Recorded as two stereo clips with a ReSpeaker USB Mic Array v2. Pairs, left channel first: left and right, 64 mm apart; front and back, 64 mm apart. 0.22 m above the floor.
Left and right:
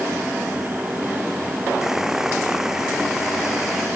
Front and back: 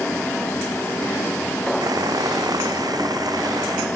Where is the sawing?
170° right.